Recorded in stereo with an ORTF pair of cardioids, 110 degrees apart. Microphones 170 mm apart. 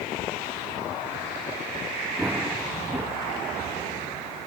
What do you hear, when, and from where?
2.2 s running footsteps: 10° right